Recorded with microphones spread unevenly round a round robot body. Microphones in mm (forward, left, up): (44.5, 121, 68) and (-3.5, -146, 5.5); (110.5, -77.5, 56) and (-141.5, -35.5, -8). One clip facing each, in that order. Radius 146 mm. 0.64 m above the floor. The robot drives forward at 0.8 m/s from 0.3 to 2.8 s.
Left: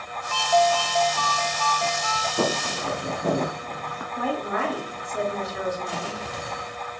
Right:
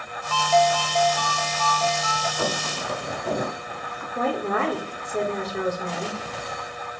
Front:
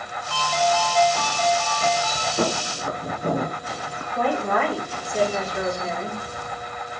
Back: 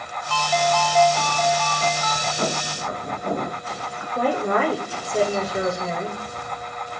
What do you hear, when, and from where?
0.3 s a ringtone: 160° left, 1.4 m; by 2.3 s 170° left, 3 m
2.4 s footsteps: 45° left, 5 m
4.2 s a woman speaking: 135° right, 3.5 m